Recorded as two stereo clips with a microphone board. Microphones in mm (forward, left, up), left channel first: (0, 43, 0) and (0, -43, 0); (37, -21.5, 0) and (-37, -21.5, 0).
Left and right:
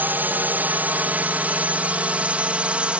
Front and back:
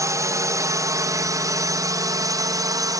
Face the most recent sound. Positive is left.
turn(degrees=-165)